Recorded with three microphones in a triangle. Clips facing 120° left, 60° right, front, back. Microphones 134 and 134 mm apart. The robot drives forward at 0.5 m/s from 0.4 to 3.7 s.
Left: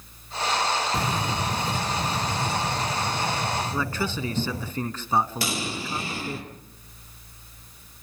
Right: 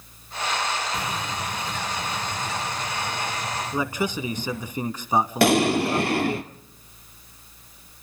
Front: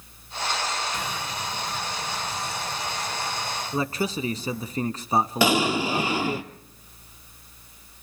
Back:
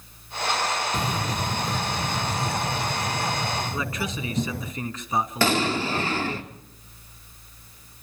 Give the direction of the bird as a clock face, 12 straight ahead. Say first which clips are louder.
Left 3 dB, back 5 dB; 7 o'clock.